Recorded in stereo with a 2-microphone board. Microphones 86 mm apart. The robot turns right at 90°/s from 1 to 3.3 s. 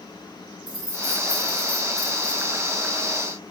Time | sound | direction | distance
0.7 | keys jangling | 85° right | 2 m